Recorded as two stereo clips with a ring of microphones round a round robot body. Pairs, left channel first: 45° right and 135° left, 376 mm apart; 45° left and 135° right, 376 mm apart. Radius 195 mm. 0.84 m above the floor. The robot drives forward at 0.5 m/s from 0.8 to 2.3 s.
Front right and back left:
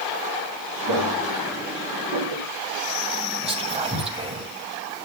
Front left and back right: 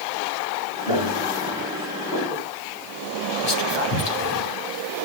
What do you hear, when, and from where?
0.9 s footsteps: 80° left, 6 m; by 2.5 s 90° left, 5 m
3.4 s whispering: 60° left, 5 m